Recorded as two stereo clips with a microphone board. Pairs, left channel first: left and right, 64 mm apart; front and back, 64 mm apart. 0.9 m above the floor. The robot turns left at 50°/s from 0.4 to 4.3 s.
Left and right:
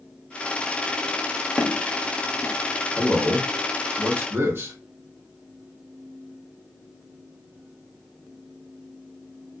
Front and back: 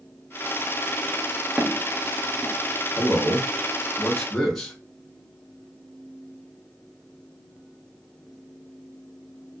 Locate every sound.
1.6 s footsteps: 130° left, 0.9 m; by 2.5 s 85° left, 0.9 m
3.0 s a man speaking: 15° right, 1.1 m; by 4.8 s 80° right, 1.1 m